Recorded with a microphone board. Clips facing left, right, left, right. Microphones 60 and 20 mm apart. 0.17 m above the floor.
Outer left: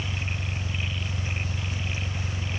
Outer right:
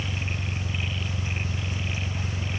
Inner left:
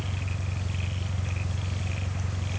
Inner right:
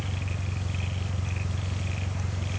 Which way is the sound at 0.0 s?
30° right (ahead or behind).